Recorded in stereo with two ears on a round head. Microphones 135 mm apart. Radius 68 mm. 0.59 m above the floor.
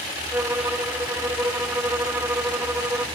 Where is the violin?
15° right (ahead or behind), 1.1 m.